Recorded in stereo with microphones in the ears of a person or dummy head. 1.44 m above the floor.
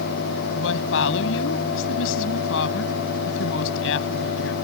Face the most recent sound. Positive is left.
turn(degrees=70)  # may be behind; listen again after turning